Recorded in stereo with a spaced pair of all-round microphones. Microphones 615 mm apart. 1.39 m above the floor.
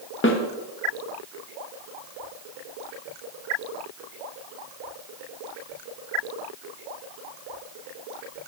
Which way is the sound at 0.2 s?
20° left (ahead or behind).